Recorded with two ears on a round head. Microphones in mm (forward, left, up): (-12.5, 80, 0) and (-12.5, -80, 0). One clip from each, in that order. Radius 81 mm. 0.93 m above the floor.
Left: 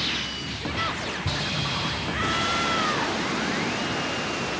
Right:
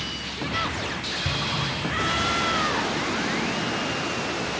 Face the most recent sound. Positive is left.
turn(degrees=-40)  # may be behind; listen again after turning